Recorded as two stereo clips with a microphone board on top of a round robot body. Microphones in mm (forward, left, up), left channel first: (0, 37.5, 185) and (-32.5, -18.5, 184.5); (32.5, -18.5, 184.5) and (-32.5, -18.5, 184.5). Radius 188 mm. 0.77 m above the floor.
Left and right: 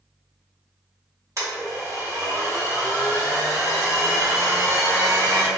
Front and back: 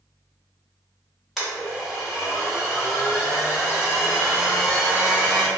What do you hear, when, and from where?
1.4 s a blender: 90° right, 1.5 m